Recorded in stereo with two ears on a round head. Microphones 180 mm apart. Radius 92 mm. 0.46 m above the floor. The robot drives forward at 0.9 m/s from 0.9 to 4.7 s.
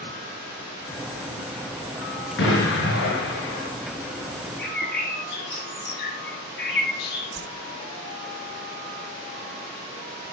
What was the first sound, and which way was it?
An explosion, 65° left (ahead or behind).